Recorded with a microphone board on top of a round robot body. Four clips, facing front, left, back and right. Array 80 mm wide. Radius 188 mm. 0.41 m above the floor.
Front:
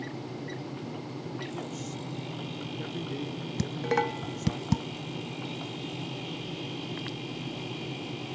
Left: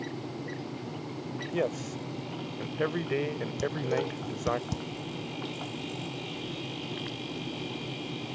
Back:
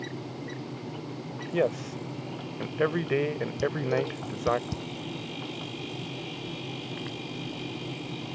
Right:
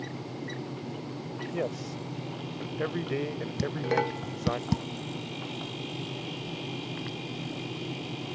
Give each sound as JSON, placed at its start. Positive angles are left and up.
{"t": 1.5, "sound": "a man speaking", "azimuth_deg": 170}
{"t": 3.6, "sound": "dishes clattering", "azimuth_deg": -30}